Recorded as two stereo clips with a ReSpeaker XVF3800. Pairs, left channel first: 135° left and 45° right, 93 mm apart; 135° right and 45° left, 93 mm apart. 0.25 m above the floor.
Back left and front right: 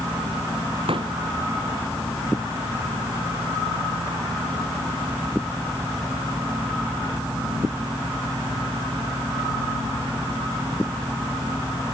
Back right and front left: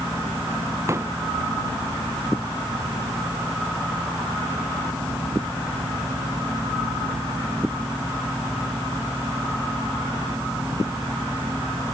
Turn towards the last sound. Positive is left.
turn(degrees=-15)